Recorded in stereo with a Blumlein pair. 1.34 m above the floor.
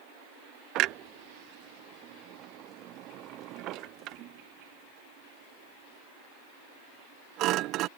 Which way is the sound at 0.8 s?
35° right.